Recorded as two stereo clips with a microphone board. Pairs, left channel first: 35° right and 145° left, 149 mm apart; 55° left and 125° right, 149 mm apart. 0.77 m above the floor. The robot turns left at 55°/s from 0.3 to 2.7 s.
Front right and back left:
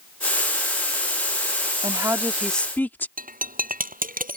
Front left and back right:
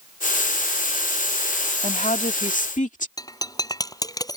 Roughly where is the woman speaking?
Left.